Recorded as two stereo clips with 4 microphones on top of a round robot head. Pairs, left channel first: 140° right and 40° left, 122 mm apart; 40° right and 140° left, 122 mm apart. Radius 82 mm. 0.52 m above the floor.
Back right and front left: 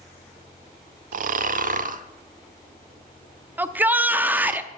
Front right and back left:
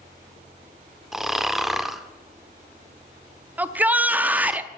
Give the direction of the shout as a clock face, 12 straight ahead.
9 o'clock.